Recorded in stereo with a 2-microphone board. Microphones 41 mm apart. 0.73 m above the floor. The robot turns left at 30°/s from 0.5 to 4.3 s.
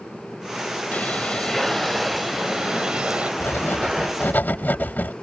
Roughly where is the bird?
Ahead left.